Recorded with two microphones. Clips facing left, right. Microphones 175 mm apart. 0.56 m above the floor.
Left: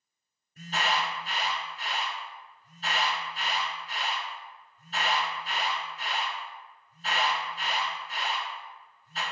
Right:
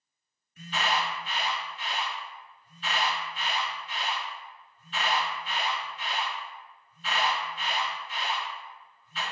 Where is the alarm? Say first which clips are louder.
Even; 40° left (ahead or behind), 1.3 m.